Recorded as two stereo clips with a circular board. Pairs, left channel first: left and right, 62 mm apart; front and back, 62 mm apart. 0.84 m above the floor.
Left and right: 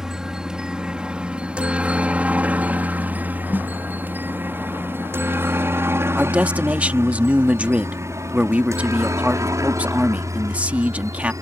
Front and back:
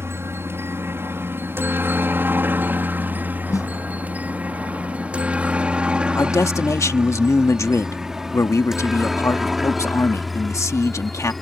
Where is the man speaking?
25° right.